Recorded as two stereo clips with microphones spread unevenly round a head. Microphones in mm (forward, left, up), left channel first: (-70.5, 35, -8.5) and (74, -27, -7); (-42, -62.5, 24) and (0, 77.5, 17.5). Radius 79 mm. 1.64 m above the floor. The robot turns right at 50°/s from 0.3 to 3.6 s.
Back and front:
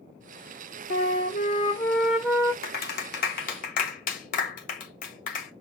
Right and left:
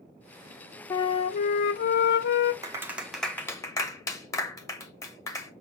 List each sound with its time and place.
0.9 s a flute: 170° right, 0.9 m; by 2.5 s 90° right, 0.9 m
2.6 s a clap: 140° left, 1.1 m; by 5.5 s 170° right, 1.1 m